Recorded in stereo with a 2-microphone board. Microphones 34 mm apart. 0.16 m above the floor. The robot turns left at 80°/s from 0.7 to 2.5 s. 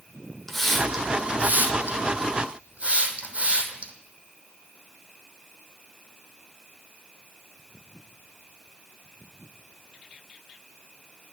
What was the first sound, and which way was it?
A hiss, 10° left (ahead or behind).